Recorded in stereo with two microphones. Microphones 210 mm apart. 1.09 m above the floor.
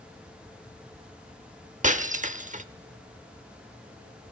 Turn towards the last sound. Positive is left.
turn(degrees=-35)  # may be behind; listen again after turning